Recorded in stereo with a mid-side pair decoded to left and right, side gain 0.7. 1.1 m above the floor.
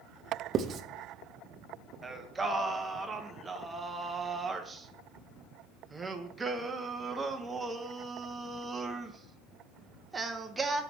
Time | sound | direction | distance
0.5 | writing | 40° right | 0.7 m
2.0 | singing | 15° right | 0.8 m